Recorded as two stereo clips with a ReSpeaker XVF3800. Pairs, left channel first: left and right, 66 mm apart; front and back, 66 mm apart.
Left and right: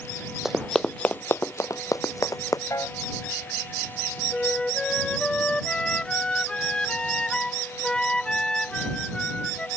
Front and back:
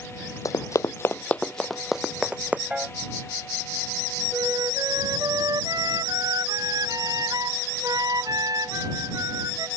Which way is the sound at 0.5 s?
5° right.